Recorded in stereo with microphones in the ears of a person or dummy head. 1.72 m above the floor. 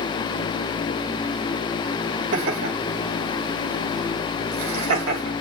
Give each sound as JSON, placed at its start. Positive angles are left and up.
{"t": 2.3, "sound": "laughter", "side_deg": -70, "distance_m": 3.0}